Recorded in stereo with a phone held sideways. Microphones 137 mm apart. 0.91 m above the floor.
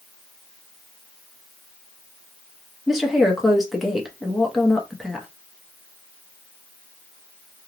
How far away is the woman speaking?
About 0.8 m.